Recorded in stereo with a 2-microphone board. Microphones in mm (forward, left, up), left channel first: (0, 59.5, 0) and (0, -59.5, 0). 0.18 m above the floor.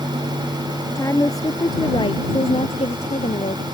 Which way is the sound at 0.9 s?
20° left (ahead or behind).